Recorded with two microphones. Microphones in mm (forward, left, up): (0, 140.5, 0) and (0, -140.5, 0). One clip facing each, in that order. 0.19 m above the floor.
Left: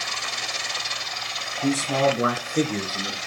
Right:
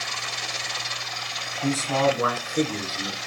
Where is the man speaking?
10° left (ahead or behind), 1.2 m; by 3.2 s 35° left (ahead or behind), 3 m.